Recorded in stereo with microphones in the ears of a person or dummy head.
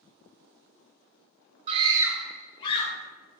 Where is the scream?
35° right (ahead or behind), 0.8 m; by 2.9 s 35° left (ahead or behind), 1.0 m.